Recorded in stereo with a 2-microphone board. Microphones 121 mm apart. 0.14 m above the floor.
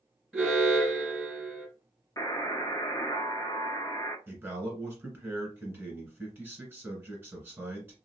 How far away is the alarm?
About 1.9 m.